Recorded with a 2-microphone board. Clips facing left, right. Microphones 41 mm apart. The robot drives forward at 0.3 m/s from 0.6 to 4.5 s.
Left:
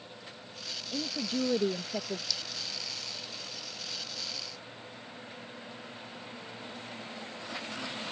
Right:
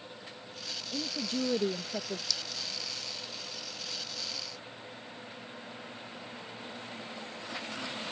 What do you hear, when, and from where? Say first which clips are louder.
0.9 s a woman speaking: left 1 dB; 5° left (ahead or behind); by 2.2 s 10° left (ahead or behind)
2.3 s a clink: even; 5° left (ahead or behind)